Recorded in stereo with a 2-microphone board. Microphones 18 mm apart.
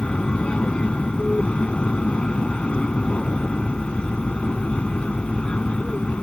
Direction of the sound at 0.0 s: 70° left (ahead or behind).